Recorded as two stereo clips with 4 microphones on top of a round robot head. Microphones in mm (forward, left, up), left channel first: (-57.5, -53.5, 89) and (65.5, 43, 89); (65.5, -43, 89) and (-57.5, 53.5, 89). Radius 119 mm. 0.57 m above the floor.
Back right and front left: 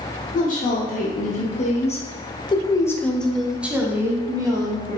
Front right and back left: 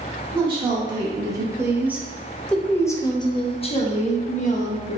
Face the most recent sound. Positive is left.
turn(degrees=-20)